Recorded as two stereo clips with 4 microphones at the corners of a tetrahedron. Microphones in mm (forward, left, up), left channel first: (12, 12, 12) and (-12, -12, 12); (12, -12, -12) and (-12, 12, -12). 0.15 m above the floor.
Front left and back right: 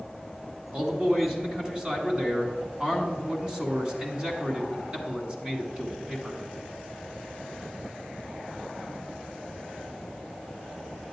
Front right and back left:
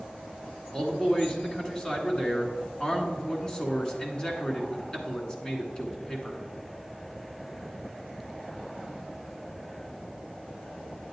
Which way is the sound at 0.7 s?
95° right.